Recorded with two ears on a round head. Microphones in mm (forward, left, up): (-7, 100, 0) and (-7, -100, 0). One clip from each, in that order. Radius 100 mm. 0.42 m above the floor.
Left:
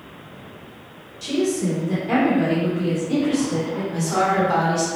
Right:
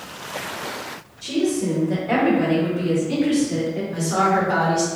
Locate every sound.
1.2 s a woman speaking: 30° left (ahead or behind), 1.5 m; by 3.8 s 25° right (ahead or behind), 1.5 m
3.9 s a woman speaking: 5° left (ahead or behind), 0.9 m